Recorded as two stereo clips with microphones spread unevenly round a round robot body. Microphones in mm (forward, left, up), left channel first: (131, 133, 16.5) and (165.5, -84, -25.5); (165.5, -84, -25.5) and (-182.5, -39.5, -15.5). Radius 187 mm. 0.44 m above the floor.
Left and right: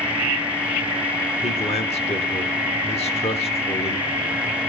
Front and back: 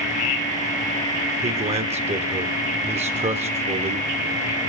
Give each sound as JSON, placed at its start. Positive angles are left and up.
{"t": 1.4, "sound": "a man speaking", "azimuth_deg": 135, "distance_m": 1.1}